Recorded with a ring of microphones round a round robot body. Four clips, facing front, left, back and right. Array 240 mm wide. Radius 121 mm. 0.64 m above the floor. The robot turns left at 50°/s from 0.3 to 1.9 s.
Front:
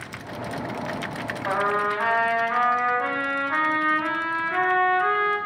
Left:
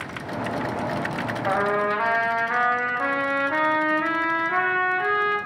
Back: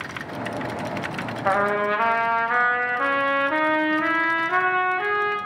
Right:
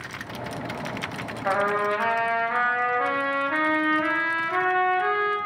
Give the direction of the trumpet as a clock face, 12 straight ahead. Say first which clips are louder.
Even, back 3 dB; 6 o'clock.